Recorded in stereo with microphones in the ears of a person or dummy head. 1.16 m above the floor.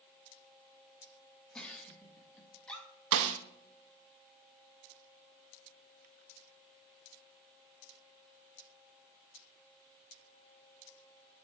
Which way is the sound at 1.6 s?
5° left (ahead or behind).